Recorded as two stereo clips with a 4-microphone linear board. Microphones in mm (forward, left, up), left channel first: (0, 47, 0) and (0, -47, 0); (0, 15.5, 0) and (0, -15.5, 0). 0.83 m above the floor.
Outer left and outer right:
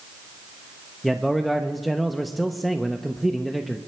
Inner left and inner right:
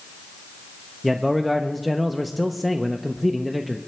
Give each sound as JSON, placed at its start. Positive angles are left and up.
{"t": 1.0, "sound": "a man speaking", "side_deg": 0, "distance_m": 0.5}